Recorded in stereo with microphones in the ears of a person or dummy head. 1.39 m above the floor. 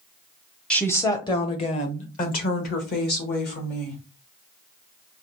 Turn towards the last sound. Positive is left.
turn(degrees=55)  # may be behind; listen again after turning